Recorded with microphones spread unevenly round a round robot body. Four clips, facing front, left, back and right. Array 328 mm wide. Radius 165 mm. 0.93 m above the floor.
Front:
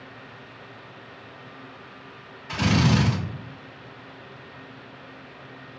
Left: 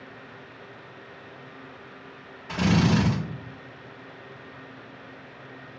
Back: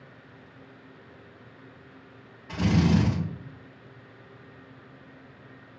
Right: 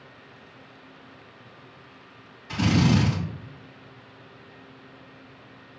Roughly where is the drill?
Left.